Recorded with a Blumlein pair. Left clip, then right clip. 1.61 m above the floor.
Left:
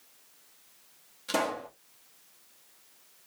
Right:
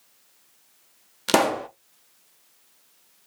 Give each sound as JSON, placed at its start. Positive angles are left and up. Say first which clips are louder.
{"t": 1.3, "sound": "a pop", "louder": "right 9 dB", "azimuth_deg": -40, "distance_m": 0.6}